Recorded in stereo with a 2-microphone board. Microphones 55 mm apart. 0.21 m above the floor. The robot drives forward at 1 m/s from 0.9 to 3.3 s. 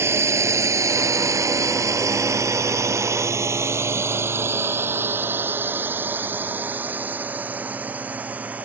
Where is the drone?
55° right (ahead or behind); by 8.7 s 30° right (ahead or behind).